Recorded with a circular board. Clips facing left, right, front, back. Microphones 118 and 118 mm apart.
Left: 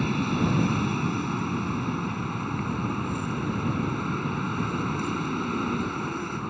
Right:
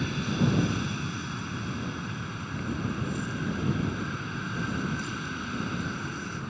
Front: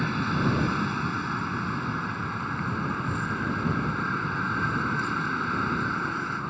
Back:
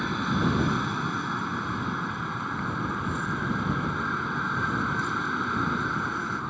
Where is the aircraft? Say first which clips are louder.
Left 3 dB, even; 95° left.